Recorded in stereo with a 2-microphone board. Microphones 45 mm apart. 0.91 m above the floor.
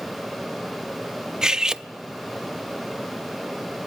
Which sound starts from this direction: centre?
Cutlery clinking, at 1.4 s.